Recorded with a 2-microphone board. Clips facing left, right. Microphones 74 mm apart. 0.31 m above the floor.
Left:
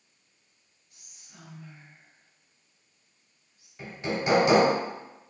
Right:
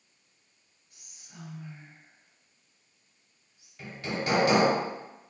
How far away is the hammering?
About 0.8 m.